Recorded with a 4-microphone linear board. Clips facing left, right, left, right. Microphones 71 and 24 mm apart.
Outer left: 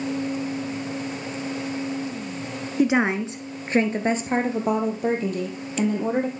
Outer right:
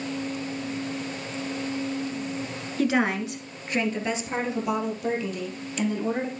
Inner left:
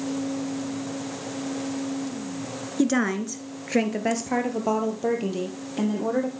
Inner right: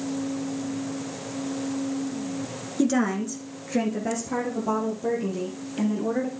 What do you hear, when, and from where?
2.8 s a woman speaking: 20° left (ahead or behind), 1.1 m; by 6.3 s 50° left (ahead or behind), 3 m